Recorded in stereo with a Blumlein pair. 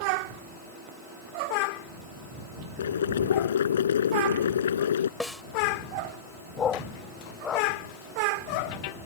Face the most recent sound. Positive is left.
turn(degrees=20)